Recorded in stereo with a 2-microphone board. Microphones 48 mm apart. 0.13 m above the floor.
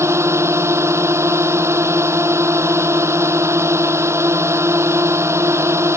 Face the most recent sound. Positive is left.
turn(degrees=-75)  # may be behind; listen again after turning